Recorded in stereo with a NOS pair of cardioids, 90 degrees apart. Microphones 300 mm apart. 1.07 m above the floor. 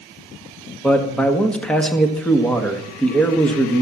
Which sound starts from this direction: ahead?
A man speaking, at 0.8 s.